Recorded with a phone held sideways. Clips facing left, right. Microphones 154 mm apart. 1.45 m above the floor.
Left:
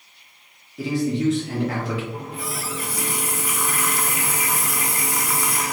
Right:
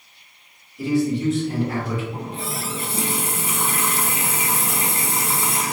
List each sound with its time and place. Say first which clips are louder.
0.8 s a man speaking: right 2 dB; 80° left, 1.5 m
2.1 s a running tap: right 1 dB; 25° right (ahead or behind), 0.5 m